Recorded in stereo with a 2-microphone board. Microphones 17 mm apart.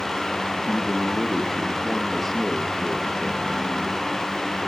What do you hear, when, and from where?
0.7 s a man speaking: 20° left (ahead or behind), 3 m